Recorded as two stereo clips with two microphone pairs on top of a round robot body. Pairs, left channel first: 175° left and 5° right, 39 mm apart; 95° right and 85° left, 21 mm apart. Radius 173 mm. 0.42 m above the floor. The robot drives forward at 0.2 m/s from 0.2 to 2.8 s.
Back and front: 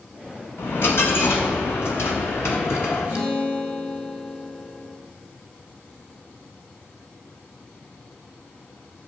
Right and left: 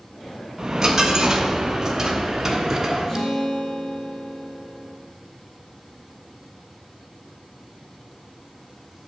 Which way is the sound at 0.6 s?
150° left.